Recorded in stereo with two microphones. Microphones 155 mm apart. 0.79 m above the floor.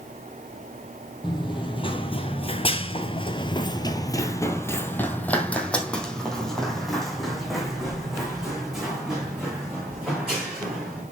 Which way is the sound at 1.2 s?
30° left (ahead or behind).